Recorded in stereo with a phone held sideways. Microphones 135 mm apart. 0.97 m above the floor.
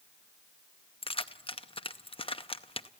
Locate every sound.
1.0 s keys jangling: 45° left (ahead or behind), 0.6 m